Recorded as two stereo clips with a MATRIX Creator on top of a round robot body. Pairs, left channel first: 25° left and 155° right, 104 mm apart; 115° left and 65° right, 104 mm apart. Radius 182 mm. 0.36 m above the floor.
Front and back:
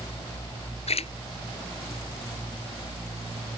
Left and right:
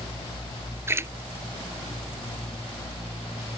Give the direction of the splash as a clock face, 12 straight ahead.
12 o'clock.